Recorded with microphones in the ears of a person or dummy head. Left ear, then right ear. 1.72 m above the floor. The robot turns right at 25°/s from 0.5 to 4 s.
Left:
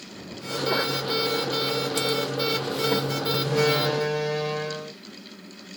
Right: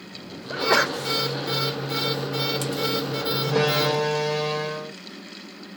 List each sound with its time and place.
0.5 s a sneeze: 45° right (ahead or behind); by 1.0 s 55° right (ahead or behind)
3.4 s a door slam: 40° right (ahead or behind); by 4.9 s 30° right (ahead or behind)